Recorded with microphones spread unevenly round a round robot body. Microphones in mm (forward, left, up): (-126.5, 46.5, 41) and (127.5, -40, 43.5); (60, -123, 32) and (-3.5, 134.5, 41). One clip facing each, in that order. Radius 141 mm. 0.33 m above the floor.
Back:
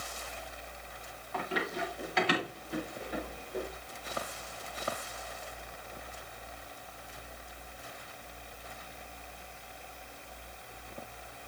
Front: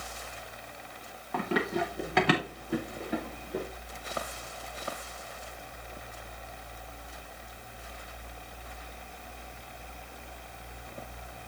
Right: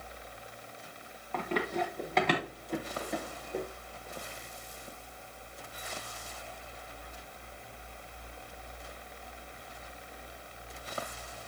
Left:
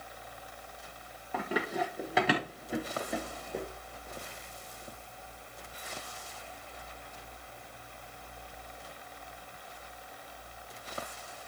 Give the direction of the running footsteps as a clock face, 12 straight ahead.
11 o'clock.